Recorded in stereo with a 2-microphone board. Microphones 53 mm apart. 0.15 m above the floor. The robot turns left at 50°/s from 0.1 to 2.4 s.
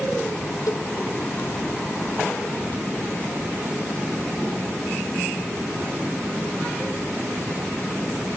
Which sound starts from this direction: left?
A cowbell, at 0.7 s.